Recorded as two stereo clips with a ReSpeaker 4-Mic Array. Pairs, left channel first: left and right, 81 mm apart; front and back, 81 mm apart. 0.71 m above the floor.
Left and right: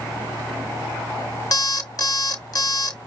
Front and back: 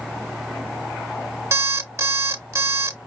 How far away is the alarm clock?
About 0.9 m.